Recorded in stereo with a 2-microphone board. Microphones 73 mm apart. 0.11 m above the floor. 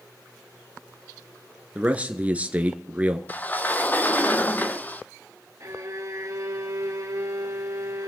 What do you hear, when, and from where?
1.8 s a man speaking: 20° right (ahead or behind), 1.3 m
3.3 s a sliding door: 25° left (ahead or behind), 0.7 m
5.6 s a violin: 45° right (ahead or behind), 1.8 m